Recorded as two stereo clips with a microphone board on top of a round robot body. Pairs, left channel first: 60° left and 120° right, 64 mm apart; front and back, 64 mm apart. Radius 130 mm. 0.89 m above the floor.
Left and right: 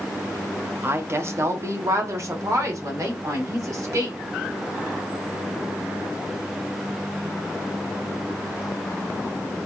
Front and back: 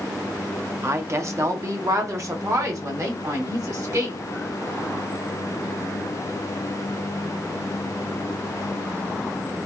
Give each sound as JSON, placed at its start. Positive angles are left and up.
{"t": 0.8, "sound": "a woman speaking", "azimuth_deg": -155, "distance_m": 1.1}